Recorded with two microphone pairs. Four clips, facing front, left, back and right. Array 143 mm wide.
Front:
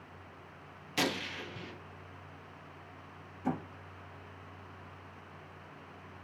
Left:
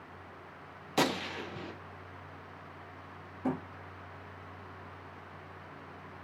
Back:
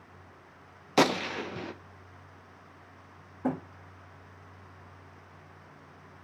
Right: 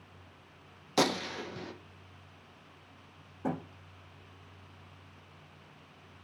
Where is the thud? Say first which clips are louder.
Left 1 dB, back 4 dB; 155° right, 6.5 m.